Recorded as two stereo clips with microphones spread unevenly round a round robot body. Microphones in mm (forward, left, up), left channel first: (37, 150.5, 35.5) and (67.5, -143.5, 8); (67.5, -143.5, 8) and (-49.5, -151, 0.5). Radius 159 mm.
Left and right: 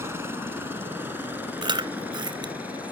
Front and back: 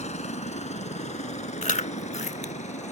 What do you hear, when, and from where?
0.0 s a helicopter: 5° right; by 2.9 s straight ahead
1.6 s chewing: 10° right